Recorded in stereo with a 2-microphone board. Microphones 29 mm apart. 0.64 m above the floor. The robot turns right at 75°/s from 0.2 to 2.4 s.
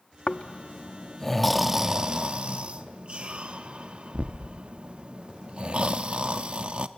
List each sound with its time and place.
0.3 s snoring: 45° left (ahead or behind), 0.7 m; by 6.9 s 40° right (ahead or behind), 0.7 m